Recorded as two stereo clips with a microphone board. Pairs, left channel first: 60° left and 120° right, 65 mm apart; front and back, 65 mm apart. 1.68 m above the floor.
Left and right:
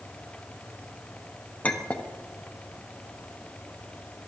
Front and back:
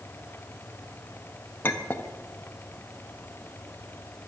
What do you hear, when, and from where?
1.6 s a clink: 20° left, 1.1 m